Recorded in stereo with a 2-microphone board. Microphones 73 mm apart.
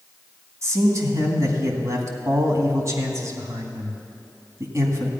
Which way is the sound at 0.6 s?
45° right (ahead or behind).